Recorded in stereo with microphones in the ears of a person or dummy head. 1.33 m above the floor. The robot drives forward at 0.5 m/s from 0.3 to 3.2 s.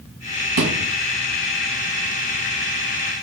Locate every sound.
0.6 s a thud: 65° right (ahead or behind), 2.5 m